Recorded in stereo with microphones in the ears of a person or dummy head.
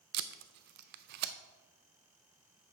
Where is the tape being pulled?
55° right (ahead or behind), 0.5 m.